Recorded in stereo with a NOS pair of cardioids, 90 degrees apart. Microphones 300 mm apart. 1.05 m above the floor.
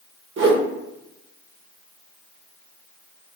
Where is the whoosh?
45° right, 0.8 m.